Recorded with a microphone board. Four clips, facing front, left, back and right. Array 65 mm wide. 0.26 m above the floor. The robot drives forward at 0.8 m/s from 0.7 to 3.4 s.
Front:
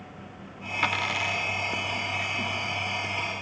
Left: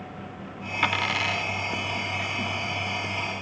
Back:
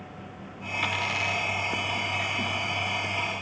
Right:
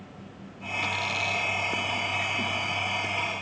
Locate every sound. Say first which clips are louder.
0.8 s a dropped coin: left 5 dB, front 2 dB; 55° left, 0.9 m; by 1.5 s 95° left, 0.8 m